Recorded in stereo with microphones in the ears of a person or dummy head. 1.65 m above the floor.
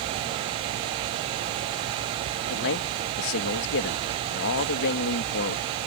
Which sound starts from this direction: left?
A man speaking, at 2.5 s.